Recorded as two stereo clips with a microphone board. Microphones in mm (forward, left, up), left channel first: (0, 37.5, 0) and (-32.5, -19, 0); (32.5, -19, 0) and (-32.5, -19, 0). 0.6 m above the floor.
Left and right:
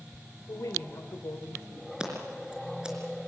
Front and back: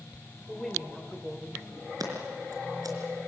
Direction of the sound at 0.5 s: 80° left.